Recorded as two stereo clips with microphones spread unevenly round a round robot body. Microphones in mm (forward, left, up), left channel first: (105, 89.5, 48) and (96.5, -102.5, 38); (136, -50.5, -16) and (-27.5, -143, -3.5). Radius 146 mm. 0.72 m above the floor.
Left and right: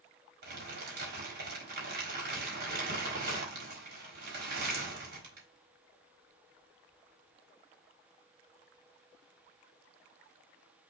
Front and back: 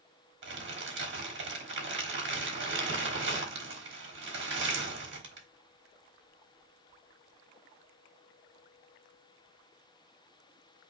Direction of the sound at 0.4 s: 135° right.